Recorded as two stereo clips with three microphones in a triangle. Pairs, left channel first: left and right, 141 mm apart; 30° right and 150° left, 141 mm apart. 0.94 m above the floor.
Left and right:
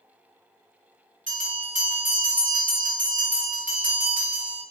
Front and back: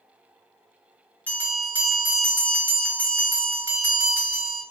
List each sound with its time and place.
1.3 s a bell: 110° right, 1.1 m